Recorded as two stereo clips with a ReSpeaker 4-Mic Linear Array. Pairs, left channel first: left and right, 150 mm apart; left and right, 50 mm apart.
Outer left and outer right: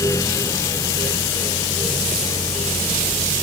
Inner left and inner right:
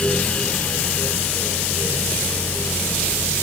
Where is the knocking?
I don't hear knocking.